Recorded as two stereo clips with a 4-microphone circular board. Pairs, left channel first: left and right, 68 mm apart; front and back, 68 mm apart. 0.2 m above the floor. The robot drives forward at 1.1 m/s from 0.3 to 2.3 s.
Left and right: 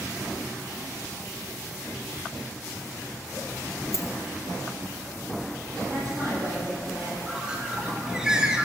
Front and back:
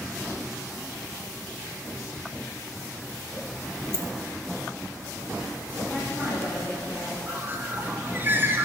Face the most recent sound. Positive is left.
turn(degrees=-160)